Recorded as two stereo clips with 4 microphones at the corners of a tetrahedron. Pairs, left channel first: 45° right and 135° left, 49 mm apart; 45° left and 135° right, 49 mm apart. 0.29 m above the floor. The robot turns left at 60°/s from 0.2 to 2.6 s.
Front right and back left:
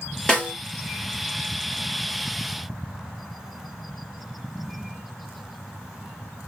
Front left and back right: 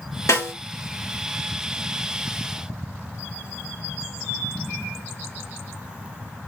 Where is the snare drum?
35° left, 3 m; by 0.5 s 25° left, 3 m.